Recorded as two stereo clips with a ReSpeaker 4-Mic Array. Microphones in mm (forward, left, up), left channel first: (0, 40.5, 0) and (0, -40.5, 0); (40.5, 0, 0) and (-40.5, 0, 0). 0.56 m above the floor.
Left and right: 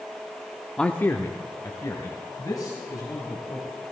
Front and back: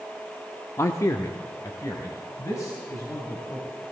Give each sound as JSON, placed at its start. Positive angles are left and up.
{"t": 0.8, "sound": "a man speaking", "azimuth_deg": 15, "distance_m": 0.7}